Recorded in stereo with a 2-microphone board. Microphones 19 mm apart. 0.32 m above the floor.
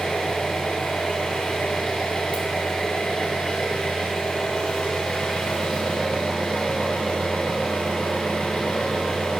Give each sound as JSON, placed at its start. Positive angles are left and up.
{"t": 0.0, "sound": "an engine running", "side_deg": 80, "distance_m": 1.2}